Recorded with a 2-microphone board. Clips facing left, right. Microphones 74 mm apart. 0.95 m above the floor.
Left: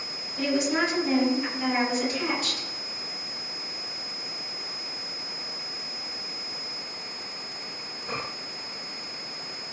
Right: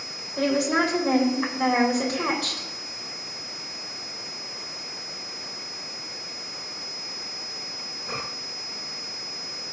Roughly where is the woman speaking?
Right.